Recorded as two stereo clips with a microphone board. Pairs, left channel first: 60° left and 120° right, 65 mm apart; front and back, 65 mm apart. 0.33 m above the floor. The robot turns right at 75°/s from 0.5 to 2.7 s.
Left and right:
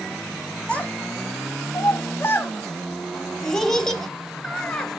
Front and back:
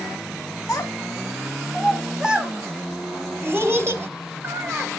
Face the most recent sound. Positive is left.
turn(degrees=140)